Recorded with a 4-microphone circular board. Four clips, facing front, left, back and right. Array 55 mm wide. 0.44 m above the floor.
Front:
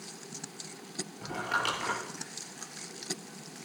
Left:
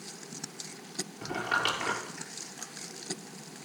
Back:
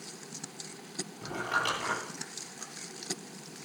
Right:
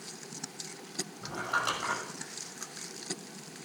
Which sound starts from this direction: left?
Crumpling, at 1.2 s.